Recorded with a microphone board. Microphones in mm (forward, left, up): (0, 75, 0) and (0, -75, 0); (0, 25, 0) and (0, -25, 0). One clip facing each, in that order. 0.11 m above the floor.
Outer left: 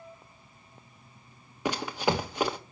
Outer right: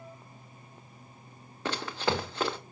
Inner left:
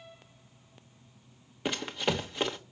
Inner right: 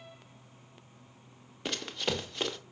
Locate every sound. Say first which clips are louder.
1.6 s running footsteps: outer left 3 dB, inner left 3 dB; 15° left (ahead or behind), 1.1 m